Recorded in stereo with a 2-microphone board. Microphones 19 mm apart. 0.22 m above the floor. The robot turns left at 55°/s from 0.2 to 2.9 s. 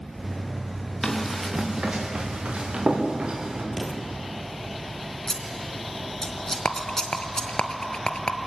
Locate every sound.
1.0 s running footsteps: 15° left (ahead or behind), 4.5 m; by 3.6 s 60° right (ahead or behind), 5.5 m
3.7 s an explosion: centre (ahead or behind), 2 m
5.3 s scissors: 25° left (ahead or behind), 2.5 m
6.7 s a rattle: 70° left (ahead or behind), 0.8 m